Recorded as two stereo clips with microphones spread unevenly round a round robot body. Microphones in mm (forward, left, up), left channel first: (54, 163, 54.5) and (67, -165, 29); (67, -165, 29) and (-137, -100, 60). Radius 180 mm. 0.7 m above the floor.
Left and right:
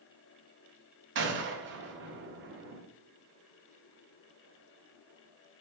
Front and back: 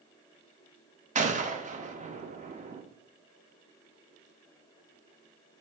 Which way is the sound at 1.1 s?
135° right.